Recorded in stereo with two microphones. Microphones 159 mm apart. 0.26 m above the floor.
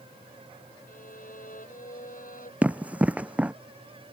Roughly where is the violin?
Left.